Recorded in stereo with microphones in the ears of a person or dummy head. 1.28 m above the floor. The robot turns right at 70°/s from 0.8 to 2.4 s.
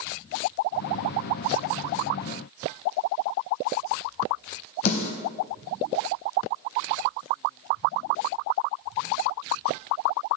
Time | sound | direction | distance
4.8 | a snare drum | 45° left (ahead or behind) | 4 m